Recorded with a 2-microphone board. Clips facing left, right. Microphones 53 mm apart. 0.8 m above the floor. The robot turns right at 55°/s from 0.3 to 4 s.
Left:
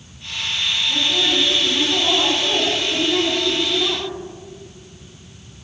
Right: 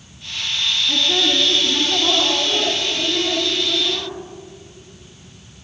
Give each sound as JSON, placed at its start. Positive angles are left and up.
{"t": 0.9, "sound": "a woman speaking", "azimuth_deg": -85, "distance_m": 9.5}